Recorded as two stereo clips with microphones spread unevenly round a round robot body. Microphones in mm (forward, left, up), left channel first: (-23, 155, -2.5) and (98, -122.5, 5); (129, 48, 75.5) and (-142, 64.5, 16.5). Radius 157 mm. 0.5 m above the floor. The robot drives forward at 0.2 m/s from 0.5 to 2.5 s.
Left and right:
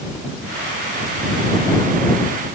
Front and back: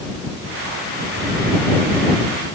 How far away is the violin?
No violin in this recording.